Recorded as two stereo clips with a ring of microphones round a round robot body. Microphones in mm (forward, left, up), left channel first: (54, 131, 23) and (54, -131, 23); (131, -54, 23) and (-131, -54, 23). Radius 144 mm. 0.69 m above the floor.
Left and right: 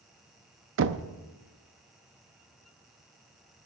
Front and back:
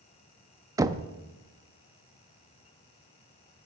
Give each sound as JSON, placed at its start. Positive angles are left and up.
{"t": 0.8, "sound": "knocking", "azimuth_deg": -105, "distance_m": 0.5}